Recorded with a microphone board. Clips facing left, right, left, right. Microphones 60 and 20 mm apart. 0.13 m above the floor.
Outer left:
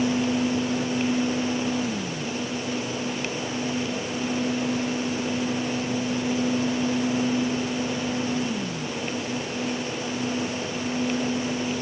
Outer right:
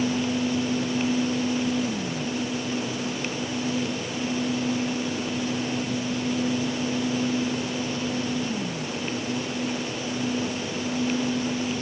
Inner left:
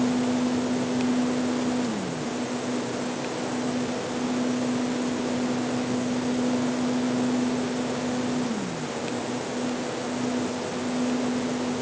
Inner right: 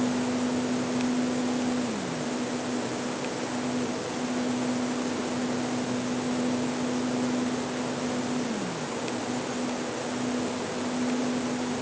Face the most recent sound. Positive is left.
No sound to turn to.